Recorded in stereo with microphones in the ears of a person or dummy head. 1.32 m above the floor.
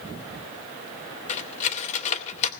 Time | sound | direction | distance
1.3 | cutlery clinking | 35° left (ahead or behind) | 2.5 m